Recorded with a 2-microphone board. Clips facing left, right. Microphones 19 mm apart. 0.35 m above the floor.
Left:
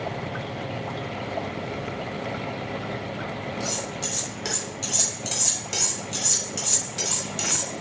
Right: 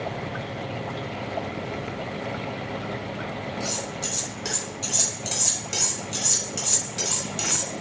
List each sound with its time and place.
3.6 s cutlery clinking: 15° left (ahead or behind), 1.4 m